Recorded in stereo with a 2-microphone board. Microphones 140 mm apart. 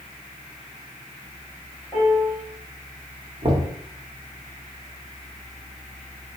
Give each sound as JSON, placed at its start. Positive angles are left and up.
{"t": 1.9, "sound": "a piano", "side_deg": 35, "distance_m": 2.0}
{"t": 3.4, "sound": "knocking", "side_deg": -40, "distance_m": 1.2}